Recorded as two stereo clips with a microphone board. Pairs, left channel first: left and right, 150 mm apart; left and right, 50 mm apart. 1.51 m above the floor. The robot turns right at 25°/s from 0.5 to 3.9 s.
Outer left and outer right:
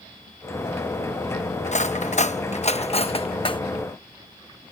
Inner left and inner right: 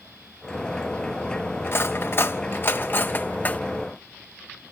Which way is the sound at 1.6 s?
50° left (ahead or behind).